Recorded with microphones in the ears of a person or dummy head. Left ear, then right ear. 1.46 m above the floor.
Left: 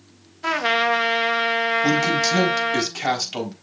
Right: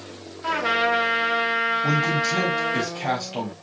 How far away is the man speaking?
About 4 m.